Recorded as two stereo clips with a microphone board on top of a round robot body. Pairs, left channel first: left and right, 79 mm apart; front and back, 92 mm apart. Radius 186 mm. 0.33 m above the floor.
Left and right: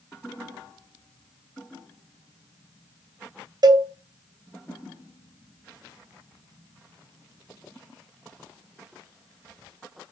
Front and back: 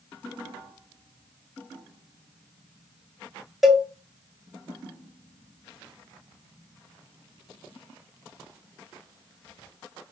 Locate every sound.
3.6 s a cowbell: 95° right, 0.6 m